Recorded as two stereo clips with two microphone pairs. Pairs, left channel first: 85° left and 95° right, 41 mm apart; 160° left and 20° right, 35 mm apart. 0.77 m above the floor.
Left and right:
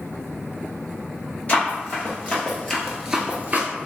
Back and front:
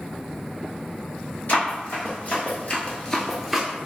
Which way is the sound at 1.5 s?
130° left.